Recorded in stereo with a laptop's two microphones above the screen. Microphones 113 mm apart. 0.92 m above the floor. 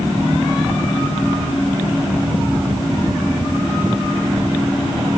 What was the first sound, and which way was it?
Only background noise.